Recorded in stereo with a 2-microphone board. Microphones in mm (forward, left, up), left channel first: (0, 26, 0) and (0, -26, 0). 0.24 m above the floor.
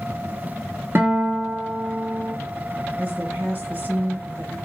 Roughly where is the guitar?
Right.